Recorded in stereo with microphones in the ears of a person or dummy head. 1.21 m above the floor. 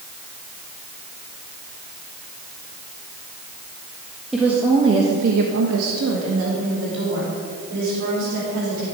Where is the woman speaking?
5° right (ahead or behind), 1.7 m; by 8.8 s 55° right (ahead or behind), 5.5 m.